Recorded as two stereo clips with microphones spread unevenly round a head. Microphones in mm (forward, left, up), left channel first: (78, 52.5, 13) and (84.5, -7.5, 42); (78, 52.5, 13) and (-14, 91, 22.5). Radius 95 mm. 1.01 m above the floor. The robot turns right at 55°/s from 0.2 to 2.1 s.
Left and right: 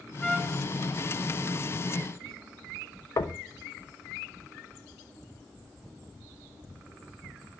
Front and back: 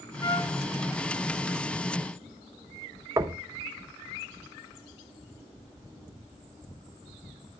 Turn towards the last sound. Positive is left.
turn(degrees=95)